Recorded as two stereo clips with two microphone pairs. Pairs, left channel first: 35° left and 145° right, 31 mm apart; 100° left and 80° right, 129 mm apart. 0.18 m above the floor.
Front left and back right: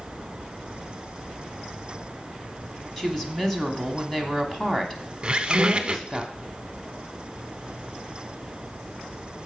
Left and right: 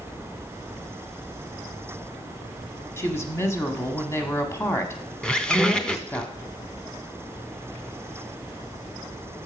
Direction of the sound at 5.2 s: Straight behind.